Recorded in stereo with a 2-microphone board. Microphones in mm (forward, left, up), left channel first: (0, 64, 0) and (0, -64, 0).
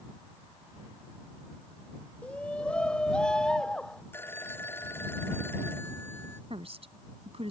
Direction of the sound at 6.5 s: 50° right (ahead or behind).